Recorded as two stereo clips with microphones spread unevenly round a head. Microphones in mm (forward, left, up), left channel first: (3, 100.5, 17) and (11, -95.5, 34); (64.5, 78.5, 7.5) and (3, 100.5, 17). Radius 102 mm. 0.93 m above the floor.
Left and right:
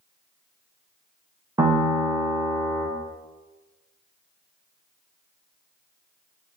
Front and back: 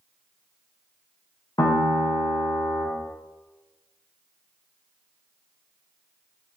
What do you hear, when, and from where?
1.6 s a piano: 10° right, 0.7 m